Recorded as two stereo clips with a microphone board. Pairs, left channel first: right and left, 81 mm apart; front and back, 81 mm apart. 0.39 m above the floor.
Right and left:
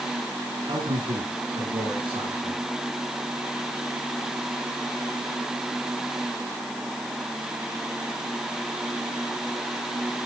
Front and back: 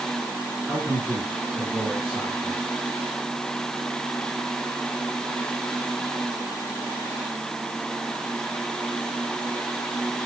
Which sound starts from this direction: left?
A man speaking, at 0.7 s.